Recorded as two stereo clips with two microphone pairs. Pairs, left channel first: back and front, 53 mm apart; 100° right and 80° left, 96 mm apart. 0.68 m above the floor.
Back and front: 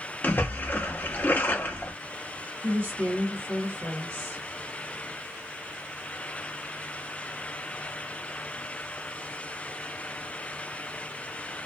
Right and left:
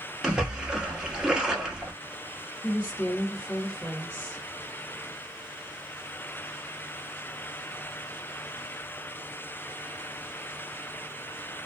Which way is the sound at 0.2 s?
165° left.